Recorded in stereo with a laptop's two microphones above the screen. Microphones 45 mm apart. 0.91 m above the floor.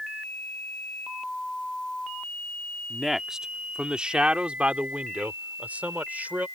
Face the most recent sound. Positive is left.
turn(degrees=-40)  # may be behind; listen again after turning